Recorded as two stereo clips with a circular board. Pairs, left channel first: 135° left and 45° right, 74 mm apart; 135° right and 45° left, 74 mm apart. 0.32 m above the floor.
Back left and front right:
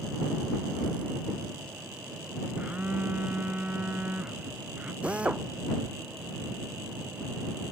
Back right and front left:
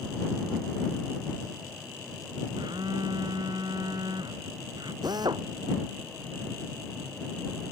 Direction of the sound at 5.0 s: 25° left.